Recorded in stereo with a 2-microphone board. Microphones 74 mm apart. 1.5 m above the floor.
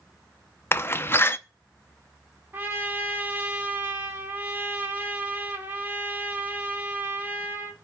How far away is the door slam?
About 0.5 m.